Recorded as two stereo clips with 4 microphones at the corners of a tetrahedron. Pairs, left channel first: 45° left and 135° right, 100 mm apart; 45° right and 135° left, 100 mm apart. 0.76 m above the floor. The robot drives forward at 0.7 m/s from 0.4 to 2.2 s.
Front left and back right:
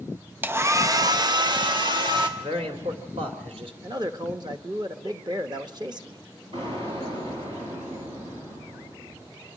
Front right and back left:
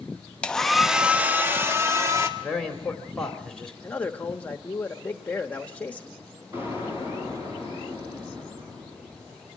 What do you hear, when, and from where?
0.4 s a hair dryer: 105° right, 0.7 m; by 2.3 s 170° right, 1.5 m
2.4 s a man speaking: 130° right, 2.5 m
3.8 s a man speaking: 115° right, 1.0 m
6.5 s an explosion: 160° right, 8 m